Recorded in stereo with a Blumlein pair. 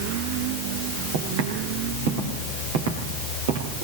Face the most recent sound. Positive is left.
turn(degrees=-55)